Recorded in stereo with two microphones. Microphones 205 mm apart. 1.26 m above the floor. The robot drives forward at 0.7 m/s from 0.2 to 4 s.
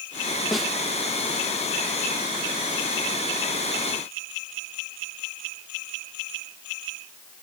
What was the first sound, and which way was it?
A snare drum, centre (ahead or behind).